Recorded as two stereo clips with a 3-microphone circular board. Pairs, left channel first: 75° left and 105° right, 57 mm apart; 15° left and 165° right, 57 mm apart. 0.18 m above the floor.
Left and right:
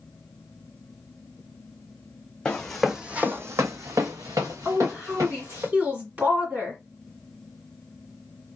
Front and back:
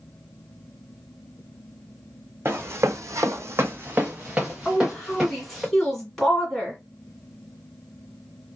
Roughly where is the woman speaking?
Ahead right.